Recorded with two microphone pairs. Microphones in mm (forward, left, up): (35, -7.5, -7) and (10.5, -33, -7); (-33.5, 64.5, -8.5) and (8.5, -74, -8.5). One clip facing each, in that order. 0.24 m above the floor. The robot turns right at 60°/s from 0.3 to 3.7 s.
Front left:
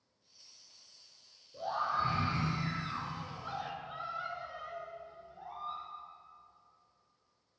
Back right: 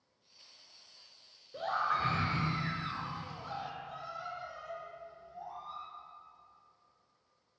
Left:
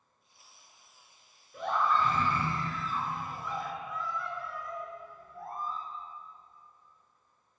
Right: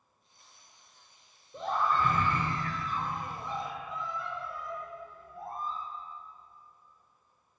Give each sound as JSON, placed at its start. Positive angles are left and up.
{"t": 1.5, "sound": "a scream", "azimuth_deg": -140, "distance_m": 4.0}